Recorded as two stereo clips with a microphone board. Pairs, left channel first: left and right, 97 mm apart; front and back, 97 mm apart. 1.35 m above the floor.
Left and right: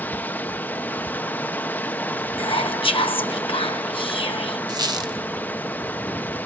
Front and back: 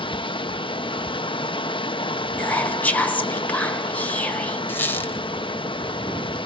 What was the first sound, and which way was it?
Running water, 20° left.